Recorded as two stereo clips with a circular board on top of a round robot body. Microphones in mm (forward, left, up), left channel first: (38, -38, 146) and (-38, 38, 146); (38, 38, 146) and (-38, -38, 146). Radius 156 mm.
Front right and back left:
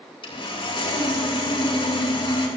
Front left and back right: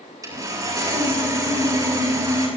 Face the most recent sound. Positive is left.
turn(degrees=-80)